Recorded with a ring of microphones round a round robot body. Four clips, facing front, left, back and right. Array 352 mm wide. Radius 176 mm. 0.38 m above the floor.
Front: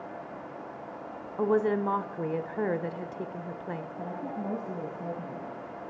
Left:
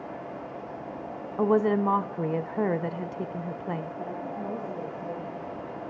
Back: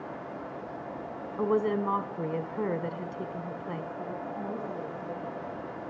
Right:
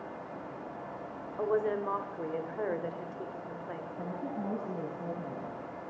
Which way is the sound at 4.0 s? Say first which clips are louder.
Left 3 dB, even; 40° right.